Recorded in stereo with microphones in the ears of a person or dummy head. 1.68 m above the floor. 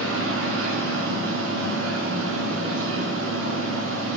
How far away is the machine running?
About 0.8 m.